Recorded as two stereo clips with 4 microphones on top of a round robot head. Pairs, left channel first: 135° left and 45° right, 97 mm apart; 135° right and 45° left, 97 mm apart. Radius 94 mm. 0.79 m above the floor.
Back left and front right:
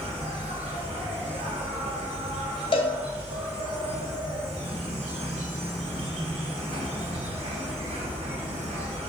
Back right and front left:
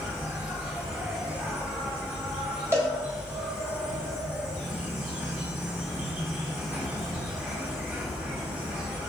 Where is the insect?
30° right, 2 m.